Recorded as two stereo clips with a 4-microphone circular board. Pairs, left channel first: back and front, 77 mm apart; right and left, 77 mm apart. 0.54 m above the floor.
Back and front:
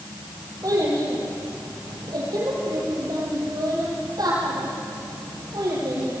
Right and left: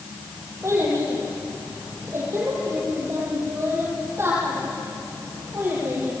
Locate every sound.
0.6 s a child speaking: 40° left, 8.5 m; by 6.1 s 30° left, 11 m